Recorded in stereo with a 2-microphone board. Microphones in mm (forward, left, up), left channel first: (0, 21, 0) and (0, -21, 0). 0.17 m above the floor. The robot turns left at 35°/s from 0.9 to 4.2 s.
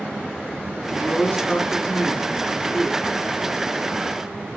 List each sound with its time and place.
1.0 s a woman speaking: 110° left, 1.3 m; by 3.0 s 35° left, 1.3 m